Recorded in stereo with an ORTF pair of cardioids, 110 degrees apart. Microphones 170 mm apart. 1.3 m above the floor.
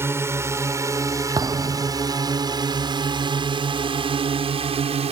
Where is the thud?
25° right.